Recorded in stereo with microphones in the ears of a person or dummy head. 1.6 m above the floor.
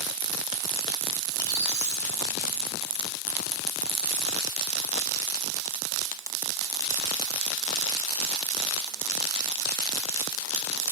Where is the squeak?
20° right (ahead or behind), 1.3 m.